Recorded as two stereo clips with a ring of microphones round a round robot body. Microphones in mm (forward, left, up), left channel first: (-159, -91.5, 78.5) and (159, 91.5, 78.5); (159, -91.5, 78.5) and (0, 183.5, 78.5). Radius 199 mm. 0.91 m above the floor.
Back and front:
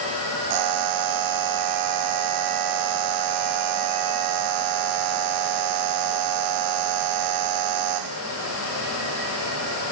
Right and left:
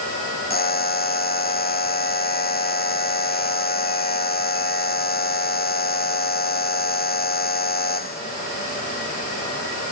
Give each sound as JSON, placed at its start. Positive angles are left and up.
{"t": 0.5, "sound": "a buzzer", "azimuth_deg": 0}